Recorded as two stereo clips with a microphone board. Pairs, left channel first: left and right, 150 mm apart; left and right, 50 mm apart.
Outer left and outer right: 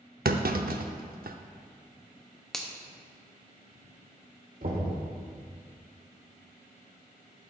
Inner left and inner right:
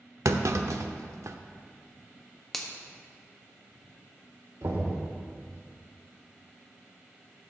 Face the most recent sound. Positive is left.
turn(degrees=-70)  # may be behind; listen again after turning